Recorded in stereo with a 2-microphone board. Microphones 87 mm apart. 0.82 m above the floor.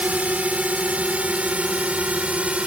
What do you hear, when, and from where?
0.0 s a drone: 15° right (ahead or behind)